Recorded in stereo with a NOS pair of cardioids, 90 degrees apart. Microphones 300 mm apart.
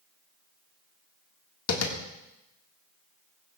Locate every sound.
1.7 s tapping: 55° left, 1.9 m